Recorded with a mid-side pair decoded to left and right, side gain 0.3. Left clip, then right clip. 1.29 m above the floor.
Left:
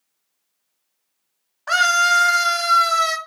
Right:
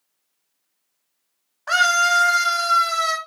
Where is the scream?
15° left, 0.7 m; by 3.2 s 55° left, 1.1 m.